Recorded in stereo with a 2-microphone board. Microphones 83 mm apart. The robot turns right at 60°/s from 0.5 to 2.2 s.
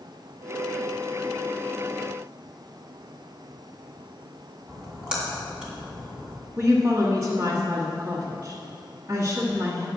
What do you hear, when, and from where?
4.7 s a splash: 10° right (ahead or behind), 2.5 m
6.6 s a woman speaking: 35° right (ahead or behind), 1.4 m